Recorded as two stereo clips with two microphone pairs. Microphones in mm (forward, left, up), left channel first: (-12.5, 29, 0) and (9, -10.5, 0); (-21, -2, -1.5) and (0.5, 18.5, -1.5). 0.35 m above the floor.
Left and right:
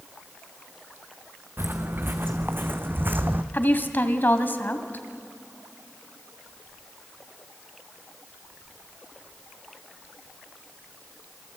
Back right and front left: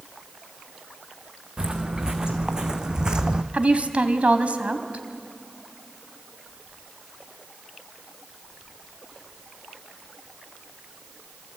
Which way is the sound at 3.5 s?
80° left.